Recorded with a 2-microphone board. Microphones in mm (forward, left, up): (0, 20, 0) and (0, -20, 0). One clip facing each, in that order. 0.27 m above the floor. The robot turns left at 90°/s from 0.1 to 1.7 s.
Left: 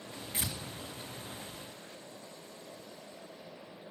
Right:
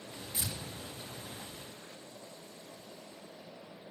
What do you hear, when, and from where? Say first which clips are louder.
0.3 s tearing paper: left 2 dB; 50° left (ahead or behind), 1.9 m; by 0.6 s 35° left (ahead or behind), 1.9 m